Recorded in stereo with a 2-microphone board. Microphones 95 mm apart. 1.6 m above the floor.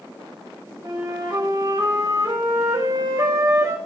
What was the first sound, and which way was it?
A flute, 40° right (ahead or behind).